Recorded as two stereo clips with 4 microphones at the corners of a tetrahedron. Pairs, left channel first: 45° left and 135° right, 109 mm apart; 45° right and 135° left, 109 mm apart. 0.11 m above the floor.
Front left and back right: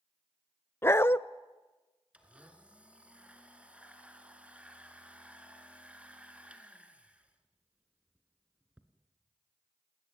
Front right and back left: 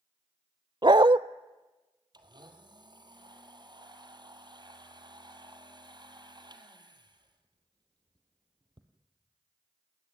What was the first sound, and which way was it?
A dog barking, 105° left.